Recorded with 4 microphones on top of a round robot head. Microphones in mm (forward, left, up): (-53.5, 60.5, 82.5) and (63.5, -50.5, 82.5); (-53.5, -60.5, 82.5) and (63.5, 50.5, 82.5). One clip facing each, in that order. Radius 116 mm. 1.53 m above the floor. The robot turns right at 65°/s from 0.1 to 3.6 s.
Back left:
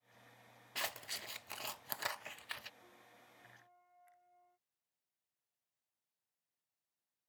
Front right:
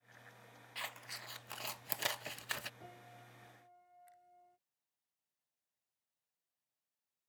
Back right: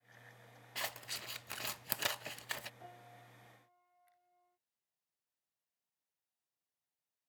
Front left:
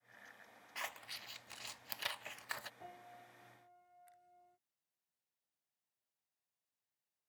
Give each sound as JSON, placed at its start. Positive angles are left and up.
{"t": 0.8, "sound": "scissors", "azimuth_deg": 170}
{"t": 2.8, "sound": "a piano", "azimuth_deg": -45}